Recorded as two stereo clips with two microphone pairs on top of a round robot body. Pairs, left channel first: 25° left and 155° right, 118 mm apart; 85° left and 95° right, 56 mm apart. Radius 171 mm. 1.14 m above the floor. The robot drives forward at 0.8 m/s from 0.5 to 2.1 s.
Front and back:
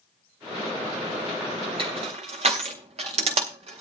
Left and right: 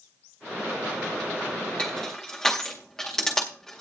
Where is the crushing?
150° left, 0.6 m; by 3.8 s 160° left, 0.7 m.